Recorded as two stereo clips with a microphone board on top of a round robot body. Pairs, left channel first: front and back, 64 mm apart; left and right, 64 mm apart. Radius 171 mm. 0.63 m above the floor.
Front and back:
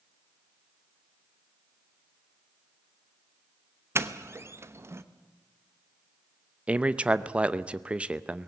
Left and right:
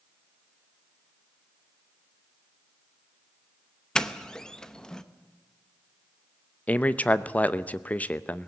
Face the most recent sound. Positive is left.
turn(degrees=125)